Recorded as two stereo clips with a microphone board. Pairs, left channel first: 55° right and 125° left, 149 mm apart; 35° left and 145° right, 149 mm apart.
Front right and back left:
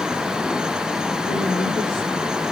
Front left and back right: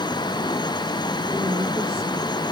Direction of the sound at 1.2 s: 95° right.